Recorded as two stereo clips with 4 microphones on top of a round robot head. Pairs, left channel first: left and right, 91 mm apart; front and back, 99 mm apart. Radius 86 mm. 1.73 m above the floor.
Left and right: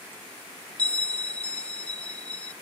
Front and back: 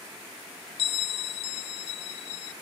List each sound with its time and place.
0.8 s a bell: 15° left